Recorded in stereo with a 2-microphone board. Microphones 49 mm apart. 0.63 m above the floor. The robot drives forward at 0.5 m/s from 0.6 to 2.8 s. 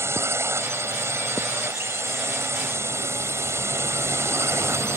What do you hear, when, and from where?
0.0 s a drone: 65° right (ahead or behind)